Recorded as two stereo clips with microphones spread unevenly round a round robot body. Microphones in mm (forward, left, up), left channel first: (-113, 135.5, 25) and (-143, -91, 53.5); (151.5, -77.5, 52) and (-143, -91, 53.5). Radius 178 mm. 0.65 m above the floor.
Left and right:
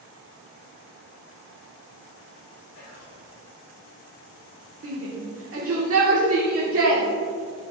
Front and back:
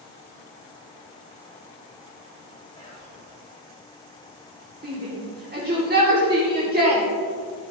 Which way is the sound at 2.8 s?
75° left.